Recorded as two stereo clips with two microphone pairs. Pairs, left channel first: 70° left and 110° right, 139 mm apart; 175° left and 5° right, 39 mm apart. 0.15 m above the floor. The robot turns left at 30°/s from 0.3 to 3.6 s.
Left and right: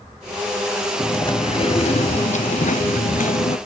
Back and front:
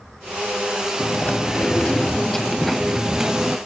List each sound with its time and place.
1.0 s chewing: 130° left, 0.7 m; by 3.6 s 55° left, 0.7 m